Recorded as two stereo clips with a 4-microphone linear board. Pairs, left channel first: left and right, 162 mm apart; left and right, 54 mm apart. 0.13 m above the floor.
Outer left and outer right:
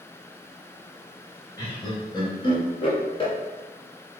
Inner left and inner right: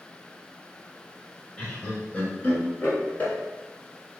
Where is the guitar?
No guitar in this recording.